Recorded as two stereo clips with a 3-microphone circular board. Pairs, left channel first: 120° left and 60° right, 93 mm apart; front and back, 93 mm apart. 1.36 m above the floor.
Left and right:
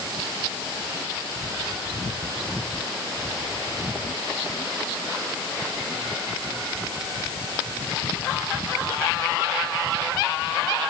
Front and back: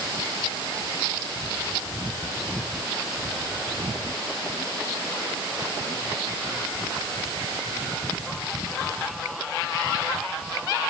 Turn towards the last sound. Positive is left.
No sound to turn to.